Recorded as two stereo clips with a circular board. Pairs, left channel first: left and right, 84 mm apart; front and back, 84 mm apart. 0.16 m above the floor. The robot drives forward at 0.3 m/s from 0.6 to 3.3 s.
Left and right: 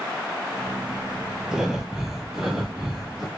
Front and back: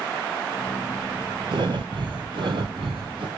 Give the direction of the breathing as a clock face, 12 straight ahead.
6 o'clock.